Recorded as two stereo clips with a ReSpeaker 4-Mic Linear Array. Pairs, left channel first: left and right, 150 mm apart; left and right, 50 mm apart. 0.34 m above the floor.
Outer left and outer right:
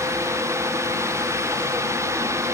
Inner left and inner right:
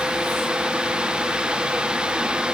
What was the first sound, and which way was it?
Only background noise.